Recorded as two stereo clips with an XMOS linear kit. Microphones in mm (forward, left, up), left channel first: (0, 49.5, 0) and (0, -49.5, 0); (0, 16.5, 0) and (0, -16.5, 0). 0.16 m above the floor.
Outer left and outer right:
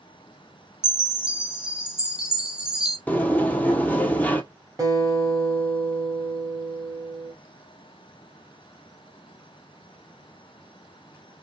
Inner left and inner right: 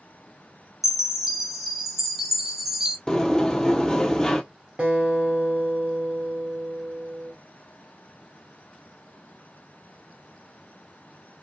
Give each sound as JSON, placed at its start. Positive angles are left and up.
{"t": 0.8, "sound": "a chime", "side_deg": -10, "distance_m": 0.9}
{"t": 3.1, "sound": "a sliding door", "side_deg": 15, "distance_m": 0.7}
{"t": 4.8, "sound": "a guitar", "side_deg": -35, "distance_m": 2.0}